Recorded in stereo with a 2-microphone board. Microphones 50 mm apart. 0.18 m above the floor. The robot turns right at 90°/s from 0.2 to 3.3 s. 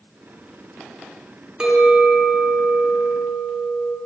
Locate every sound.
1.6 s a clink: 160° right, 1.3 m; by 4.0 s 10° right, 1.3 m